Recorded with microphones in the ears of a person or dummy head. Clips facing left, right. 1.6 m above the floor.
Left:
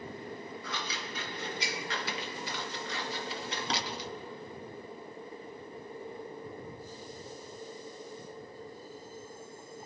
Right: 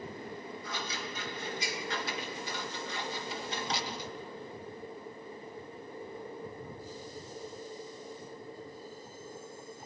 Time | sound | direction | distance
0.6 | scissors | 55° left (ahead or behind) | 1.7 m